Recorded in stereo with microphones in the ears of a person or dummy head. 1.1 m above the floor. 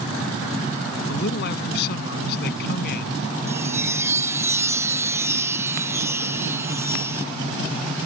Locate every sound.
1.1 s a man speaking: 65° left (ahead or behind)
3.5 s a chime: 15° right (ahead or behind)